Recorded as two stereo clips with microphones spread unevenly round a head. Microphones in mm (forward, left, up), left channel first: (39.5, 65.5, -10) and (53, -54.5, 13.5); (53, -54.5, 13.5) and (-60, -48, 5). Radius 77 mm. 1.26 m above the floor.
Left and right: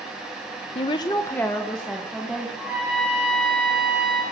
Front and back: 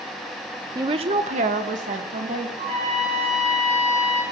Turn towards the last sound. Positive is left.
turn(degrees=-165)